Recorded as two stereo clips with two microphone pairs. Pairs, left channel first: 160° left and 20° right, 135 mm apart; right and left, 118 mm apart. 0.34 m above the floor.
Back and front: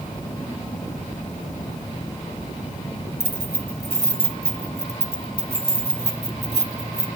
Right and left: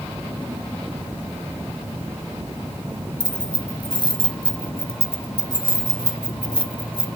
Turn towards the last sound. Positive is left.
turn(degrees=-45)